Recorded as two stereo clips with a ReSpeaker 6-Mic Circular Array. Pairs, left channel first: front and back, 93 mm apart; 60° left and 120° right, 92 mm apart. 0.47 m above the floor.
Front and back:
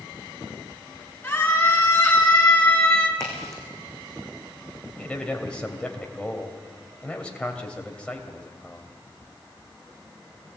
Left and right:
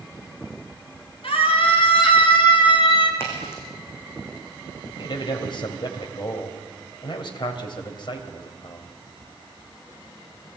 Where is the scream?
70° left, 6 m; by 3.1 s 75° left, 3.5 m.